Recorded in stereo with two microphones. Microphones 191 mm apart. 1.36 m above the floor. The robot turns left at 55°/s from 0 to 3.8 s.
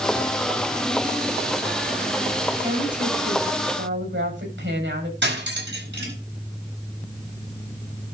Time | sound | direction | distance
2.6 | a woman speaking | 25° right | 7.5 m
5.2 | cutlery clinking | 80° right | 4.5 m